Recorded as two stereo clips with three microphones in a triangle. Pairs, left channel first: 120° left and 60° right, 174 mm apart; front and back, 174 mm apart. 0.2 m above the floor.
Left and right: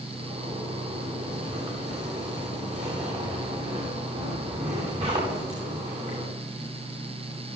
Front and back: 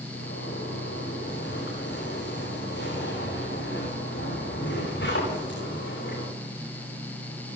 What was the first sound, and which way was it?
A zipper, 10° right.